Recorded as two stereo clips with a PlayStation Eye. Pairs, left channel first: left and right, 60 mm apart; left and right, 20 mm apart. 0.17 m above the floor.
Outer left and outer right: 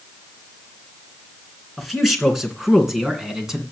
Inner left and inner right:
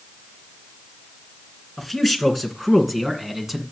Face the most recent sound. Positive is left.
turn(degrees=-10)  # may be behind; listen again after turning